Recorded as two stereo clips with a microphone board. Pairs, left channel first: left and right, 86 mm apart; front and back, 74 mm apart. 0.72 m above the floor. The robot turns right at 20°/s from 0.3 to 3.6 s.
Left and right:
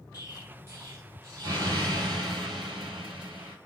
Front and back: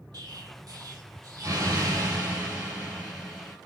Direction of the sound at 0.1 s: 165° right.